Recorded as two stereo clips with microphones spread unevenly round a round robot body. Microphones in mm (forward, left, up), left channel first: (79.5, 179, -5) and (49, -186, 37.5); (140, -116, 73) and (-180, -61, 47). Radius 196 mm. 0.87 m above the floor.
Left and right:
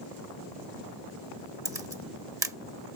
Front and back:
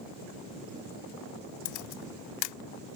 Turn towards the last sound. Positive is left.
turn(degrees=-15)